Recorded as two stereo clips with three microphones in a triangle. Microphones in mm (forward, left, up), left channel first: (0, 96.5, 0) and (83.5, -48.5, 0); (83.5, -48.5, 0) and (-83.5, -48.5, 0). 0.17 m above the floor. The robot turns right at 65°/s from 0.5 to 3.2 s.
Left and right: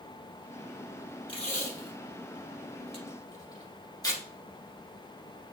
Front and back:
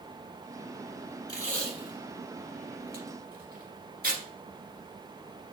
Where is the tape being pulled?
60° left, 1.6 m; by 4.2 s 175° right, 1.6 m.